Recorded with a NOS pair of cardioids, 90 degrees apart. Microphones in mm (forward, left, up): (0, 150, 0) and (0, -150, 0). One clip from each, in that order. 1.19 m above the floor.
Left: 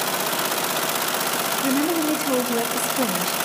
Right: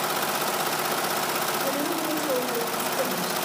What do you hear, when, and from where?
1.6 s a woman speaking: 55° left, 2 m